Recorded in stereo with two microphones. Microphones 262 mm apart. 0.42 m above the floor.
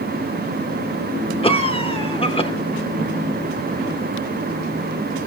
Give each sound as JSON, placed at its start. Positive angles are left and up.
{"t": 1.4, "sound": "a cough", "side_deg": 20, "distance_m": 0.8}